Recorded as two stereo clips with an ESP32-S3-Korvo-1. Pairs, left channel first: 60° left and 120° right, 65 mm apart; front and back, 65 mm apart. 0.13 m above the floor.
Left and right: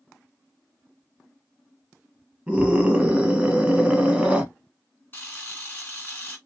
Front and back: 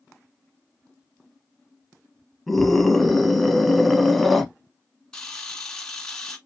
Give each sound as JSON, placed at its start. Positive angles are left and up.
{"t": 2.5, "sound": "a scream", "azimuth_deg": -85, "distance_m": 1.2}
{"t": 5.1, "sound": "a camera shutter", "azimuth_deg": 65, "distance_m": 1.6}